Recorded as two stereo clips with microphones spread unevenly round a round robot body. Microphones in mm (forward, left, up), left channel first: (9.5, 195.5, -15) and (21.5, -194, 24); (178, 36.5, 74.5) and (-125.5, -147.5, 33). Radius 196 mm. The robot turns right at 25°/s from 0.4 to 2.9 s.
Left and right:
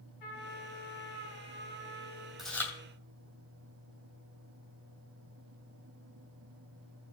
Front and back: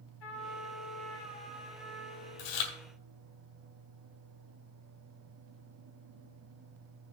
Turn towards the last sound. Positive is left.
turn(degrees=10)